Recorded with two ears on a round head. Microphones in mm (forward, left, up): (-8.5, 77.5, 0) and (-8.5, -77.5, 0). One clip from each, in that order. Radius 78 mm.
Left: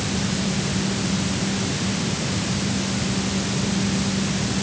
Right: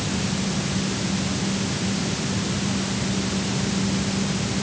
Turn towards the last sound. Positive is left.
No sound to turn to.